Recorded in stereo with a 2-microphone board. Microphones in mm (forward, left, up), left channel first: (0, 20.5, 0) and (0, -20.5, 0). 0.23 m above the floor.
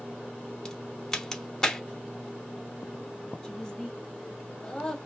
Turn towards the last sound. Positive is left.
turn(degrees=20)  # may be behind; listen again after turning